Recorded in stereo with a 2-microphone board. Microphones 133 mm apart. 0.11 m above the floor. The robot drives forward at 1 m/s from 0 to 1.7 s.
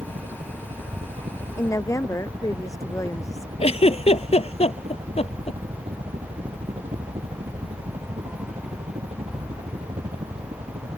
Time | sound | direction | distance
0.0 | a helicopter | 65° right (ahead or behind) | ?
1.6 | a woman speaking | 25° left (ahead or behind) | ?
3.6 | a giggle | 55° left (ahead or behind) | ?